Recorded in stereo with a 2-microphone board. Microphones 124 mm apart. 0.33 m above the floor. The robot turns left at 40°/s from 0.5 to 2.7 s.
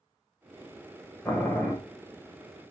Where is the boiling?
20° left (ahead or behind), 0.9 m; by 1.7 s 15° left (ahead or behind), 0.9 m.